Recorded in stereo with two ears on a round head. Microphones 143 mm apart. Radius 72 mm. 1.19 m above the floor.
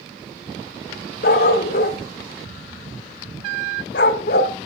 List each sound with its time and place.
1.2 s a dog barking: 60° left (ahead or behind), 1.7 m